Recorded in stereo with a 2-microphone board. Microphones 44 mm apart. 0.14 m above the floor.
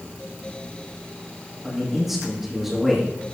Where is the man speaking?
5° right (ahead or behind), 8 m.